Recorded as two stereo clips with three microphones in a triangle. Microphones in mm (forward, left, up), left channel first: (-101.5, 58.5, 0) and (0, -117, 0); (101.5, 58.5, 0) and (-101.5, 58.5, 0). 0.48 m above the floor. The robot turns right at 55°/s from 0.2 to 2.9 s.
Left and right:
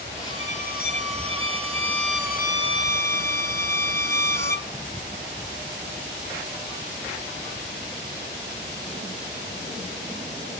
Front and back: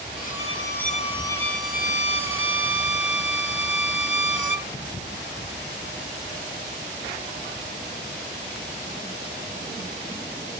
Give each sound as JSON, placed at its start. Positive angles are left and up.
{"t": 0.2, "sound": "a violin", "azimuth_deg": 50, "distance_m": 0.7}